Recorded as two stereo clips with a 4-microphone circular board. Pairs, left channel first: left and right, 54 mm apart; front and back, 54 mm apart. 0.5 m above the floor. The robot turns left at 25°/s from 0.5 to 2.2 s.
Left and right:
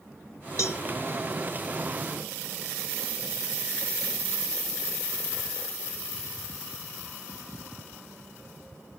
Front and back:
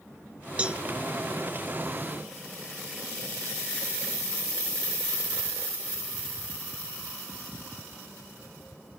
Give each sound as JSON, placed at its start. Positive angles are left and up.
{"t": 0.6, "sound": "a cowbell", "azimuth_deg": 115, "distance_m": 1.0}